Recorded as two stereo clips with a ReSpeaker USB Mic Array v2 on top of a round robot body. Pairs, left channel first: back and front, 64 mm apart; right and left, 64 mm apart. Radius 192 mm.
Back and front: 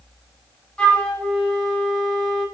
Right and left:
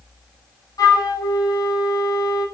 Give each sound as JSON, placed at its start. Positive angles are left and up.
{"t": 0.8, "sound": "a flute", "azimuth_deg": -105, "distance_m": 5.5}